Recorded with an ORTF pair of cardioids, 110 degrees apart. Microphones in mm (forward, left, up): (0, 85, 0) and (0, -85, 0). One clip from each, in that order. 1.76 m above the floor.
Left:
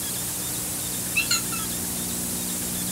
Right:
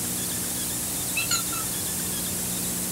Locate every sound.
1.1 s a squeak: 55° left, 2.5 m